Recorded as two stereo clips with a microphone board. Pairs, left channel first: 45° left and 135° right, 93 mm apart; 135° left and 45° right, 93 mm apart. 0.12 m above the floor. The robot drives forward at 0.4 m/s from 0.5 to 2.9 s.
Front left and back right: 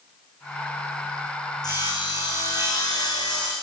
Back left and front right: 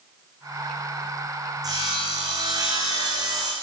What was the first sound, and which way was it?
Sawing, straight ahead.